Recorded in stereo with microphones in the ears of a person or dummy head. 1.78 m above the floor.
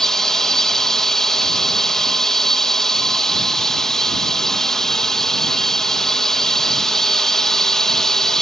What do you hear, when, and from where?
0.0 s a drone: centre (ahead or behind)